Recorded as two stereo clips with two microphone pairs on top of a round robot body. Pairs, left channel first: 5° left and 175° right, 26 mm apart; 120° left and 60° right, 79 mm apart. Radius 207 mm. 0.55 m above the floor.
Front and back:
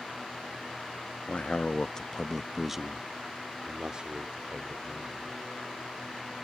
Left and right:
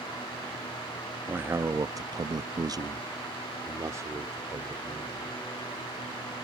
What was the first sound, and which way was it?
A man speaking, 10° left.